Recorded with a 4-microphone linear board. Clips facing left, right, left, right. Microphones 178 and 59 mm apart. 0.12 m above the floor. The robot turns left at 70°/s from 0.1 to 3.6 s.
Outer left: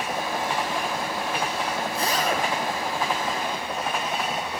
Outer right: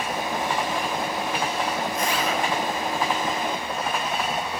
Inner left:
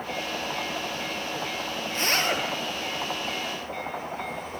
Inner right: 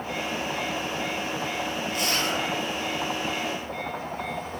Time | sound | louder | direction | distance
1.9 | a zipper | even, inner left 4 dB | 150° left | 0.8 m